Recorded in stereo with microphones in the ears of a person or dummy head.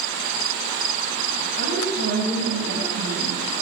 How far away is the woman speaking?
About 9.5 m.